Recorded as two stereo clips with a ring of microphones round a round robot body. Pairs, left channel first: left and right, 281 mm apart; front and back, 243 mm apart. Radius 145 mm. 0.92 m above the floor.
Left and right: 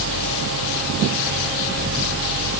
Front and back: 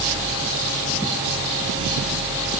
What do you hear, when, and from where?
Only background noise.